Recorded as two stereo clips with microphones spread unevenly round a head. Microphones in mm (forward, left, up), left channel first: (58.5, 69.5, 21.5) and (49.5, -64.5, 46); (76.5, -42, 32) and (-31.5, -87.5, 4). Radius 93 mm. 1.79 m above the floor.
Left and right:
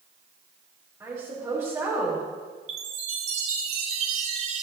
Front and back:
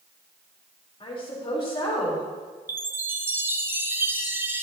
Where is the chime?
80° right, 1.4 m.